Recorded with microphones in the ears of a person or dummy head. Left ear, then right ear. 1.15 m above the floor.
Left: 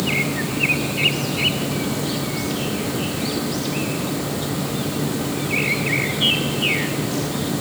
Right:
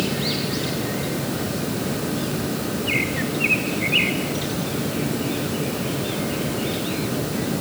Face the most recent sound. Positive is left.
No sound to turn to.